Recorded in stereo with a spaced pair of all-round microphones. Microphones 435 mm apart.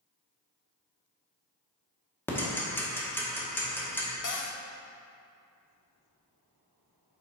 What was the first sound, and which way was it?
Ticking, 5° left (ahead or behind).